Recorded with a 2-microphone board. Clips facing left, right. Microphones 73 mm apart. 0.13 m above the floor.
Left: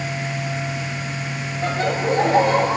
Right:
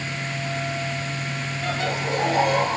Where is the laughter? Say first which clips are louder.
Left 6 dB; 35° left (ahead or behind), 4.5 m.